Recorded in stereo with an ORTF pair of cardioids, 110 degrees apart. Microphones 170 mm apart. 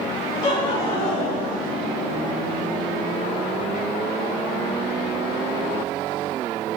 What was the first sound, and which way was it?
Laughter, 65° left.